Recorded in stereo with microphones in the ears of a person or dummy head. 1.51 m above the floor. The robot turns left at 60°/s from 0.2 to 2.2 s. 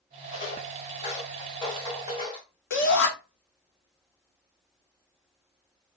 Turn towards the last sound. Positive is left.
turn(degrees=60)  # may be behind; listen again after turning